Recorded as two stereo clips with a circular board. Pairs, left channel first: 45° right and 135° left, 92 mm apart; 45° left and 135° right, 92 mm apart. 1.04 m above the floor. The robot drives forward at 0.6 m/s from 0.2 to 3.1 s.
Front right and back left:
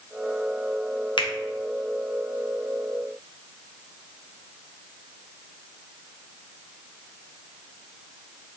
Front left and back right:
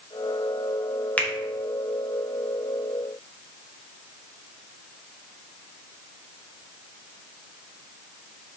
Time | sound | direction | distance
1.2 | a finger snap | 25° right | 0.7 m